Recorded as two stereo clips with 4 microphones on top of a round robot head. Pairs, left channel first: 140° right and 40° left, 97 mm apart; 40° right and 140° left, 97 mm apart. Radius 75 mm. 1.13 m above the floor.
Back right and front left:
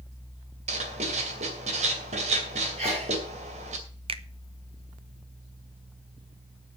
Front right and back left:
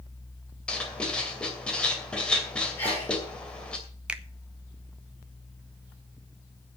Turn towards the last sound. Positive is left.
turn(degrees=60)